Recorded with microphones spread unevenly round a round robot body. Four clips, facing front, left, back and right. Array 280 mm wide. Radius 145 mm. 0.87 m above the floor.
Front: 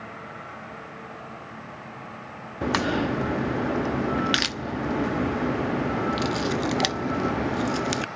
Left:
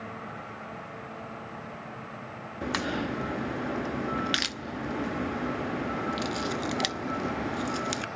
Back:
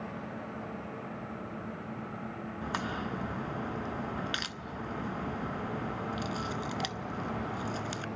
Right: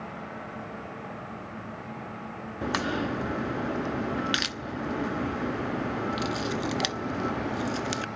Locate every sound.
2.6 s a crack: 5° right, 0.9 m